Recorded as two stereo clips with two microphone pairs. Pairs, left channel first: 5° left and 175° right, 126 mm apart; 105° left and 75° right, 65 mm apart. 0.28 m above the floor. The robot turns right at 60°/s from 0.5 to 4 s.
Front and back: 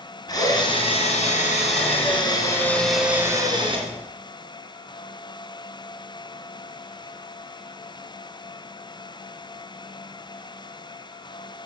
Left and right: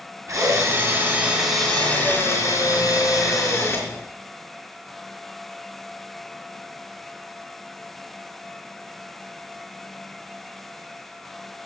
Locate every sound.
0.3 s a drill: 50° right, 3 m; by 3.9 s 155° left, 3 m